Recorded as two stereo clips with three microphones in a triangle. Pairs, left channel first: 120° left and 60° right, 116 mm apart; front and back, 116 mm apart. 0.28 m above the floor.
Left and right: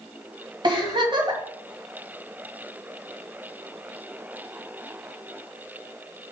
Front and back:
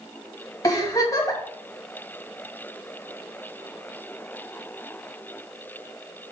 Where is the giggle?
45° right, 1.9 m.